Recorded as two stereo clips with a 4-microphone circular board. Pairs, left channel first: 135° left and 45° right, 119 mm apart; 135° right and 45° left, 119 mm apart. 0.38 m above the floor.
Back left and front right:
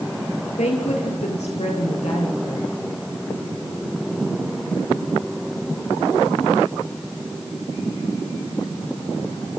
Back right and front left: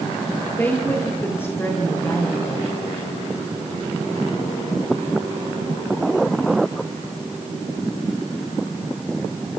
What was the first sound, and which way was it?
A woman speaking, 150° left.